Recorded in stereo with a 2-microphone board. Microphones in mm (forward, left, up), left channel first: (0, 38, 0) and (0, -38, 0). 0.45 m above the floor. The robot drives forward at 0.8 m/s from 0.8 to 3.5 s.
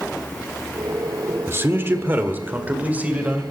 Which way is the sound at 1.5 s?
30° right (ahead or behind).